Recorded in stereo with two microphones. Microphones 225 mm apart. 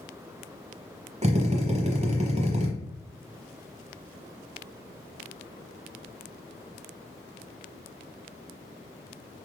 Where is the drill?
30° right (ahead or behind), 0.8 m.